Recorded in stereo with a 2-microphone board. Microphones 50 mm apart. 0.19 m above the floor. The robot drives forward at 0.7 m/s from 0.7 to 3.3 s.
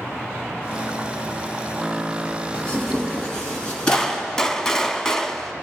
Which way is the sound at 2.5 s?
25° left (ahead or behind).